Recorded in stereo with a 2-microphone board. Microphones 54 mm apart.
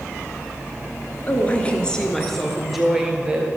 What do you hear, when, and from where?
1.3 s a woman speaking: 30° left (ahead or behind), 1.7 m; by 3.5 s 15° right (ahead or behind), 2 m